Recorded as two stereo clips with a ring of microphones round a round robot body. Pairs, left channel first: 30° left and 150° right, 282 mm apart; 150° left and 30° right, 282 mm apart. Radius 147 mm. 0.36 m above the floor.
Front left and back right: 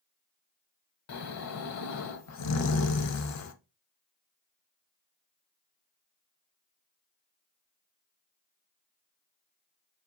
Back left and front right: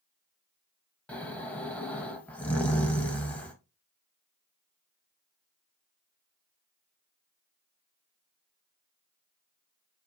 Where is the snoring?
65° left, 0.7 m.